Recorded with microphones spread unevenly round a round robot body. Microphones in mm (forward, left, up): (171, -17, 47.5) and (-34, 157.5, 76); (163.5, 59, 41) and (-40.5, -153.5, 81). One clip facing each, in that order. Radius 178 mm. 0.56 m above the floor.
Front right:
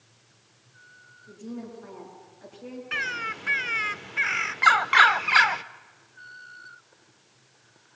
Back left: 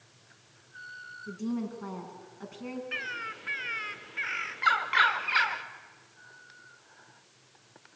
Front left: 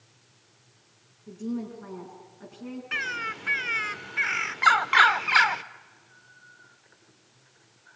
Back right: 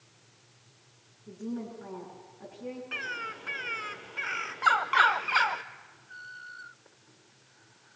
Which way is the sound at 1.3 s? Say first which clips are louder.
Back left 5 dB, front left 4 dB; 130° left.